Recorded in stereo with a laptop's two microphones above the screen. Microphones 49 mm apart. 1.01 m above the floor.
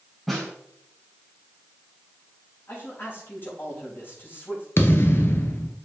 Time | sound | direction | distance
0.3 | a snare drum | 5° left (ahead or behind) | 3.5 m
2.7 | a man speaking | 55° left (ahead or behind) | 4.5 m
4.8 | a thud | 50° left (ahead or behind) | 1.4 m